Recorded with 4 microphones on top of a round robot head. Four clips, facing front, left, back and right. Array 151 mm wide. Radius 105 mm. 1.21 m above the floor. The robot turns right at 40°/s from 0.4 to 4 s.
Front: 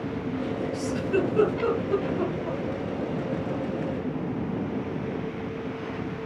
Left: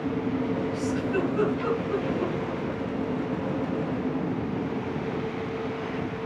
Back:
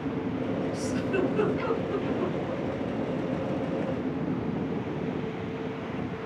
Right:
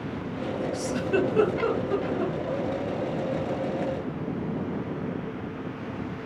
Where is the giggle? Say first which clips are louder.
Right 1 dB, front 5 dB; 95° right, 0.9 m; by 2.6 s 20° right, 0.9 m.